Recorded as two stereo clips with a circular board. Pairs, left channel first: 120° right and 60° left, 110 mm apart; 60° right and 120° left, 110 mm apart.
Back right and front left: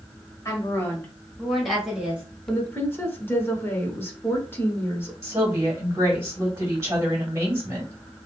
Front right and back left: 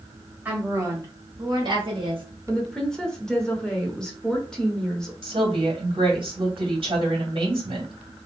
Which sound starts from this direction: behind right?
A woman speaking, at 2.5 s.